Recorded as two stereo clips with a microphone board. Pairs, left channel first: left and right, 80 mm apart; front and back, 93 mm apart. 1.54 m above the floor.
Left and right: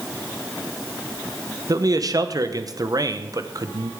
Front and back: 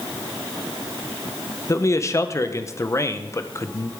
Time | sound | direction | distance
1.7 | a man speaking | 55° right | 0.8 m